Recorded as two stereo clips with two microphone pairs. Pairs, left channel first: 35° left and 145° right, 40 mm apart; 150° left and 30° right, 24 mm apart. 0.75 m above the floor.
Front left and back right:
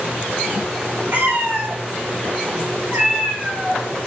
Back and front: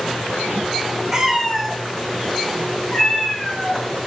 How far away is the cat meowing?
About 2 m.